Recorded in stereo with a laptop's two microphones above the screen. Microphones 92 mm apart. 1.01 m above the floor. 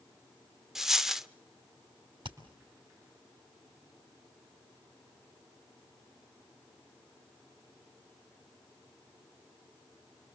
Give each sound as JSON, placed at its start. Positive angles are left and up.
{"t": 0.8, "sound": "a dropped coin", "side_deg": -5, "distance_m": 0.7}
{"t": 2.2, "sound": "hammering", "side_deg": -60, "distance_m": 3.0}